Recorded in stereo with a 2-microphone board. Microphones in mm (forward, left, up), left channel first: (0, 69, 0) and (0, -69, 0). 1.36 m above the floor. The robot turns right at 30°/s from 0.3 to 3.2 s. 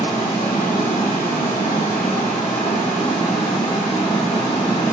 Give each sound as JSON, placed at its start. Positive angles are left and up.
{"t": 0.0, "sound": "running water", "azimuth_deg": 55, "distance_m": 1.0}